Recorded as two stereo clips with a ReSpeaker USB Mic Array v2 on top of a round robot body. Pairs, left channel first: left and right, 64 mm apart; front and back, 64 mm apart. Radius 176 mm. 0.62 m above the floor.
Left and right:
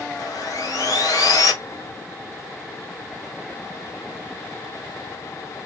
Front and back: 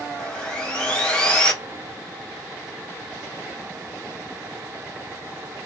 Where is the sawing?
75° left, 1.9 m.